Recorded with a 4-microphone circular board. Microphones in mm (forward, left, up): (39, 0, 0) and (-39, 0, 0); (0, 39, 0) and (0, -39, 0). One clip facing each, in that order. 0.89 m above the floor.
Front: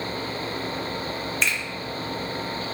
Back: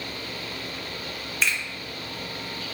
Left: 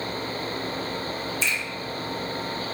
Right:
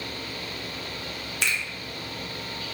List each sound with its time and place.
1.4 s a finger snap: 95° right, 0.6 m